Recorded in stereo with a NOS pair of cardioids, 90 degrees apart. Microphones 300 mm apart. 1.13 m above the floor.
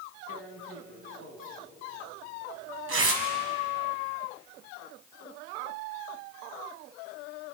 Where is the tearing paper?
45° right, 4 m.